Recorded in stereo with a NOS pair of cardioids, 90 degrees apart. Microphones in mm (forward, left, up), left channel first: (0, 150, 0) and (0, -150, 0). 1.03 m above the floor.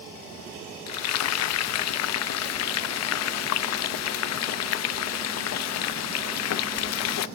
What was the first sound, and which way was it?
Frying, 60° left.